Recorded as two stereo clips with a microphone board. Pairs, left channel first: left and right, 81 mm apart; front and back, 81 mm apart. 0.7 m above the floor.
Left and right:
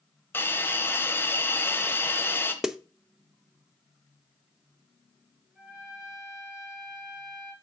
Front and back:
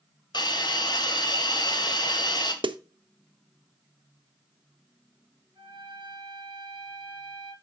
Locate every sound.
0.3 s a hiss: 25° left, 1.1 m
2.6 s a snare drum: 175° right, 0.5 m
5.5 s a trumpet: 170° right, 3 m